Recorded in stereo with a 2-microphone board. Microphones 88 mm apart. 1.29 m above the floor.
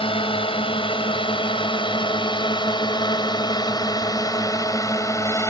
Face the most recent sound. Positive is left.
turn(degrees=35)  # may be behind; listen again after turning